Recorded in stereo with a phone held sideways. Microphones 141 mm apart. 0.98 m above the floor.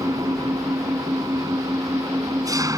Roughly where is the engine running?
Right.